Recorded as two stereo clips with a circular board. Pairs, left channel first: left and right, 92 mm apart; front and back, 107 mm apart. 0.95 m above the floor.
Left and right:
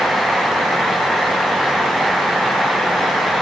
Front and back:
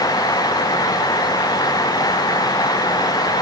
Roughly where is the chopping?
I don't hear chopping.